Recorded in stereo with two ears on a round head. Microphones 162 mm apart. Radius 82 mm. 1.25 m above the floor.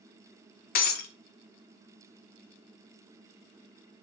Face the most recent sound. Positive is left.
turn(degrees=50)  # may be behind; listen again after turning